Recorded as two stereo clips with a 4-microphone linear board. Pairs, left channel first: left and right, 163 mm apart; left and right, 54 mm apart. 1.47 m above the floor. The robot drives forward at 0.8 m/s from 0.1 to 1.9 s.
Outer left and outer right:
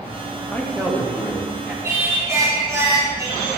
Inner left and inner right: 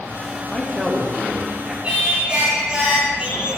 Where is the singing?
20° right (ahead or behind), 3 m.